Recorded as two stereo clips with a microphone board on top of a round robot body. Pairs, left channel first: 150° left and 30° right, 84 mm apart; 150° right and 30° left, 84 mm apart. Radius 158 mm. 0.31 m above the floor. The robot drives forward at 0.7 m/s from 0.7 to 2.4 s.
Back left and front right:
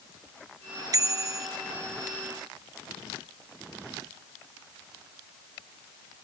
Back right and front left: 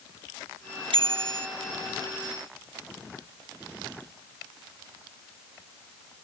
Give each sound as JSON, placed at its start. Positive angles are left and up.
{"t": 0.9, "sound": "a bicycle bell", "azimuth_deg": 20}